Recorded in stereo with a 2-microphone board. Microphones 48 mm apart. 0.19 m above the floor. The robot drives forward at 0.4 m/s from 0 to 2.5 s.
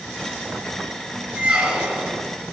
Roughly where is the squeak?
Right.